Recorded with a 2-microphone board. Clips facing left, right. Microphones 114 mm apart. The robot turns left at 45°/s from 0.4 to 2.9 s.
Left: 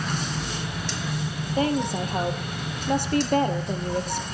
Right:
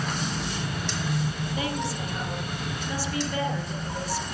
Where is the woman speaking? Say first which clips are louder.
Left 9 dB; 130° left, 2.5 m; by 4.2 s 70° left, 2.5 m.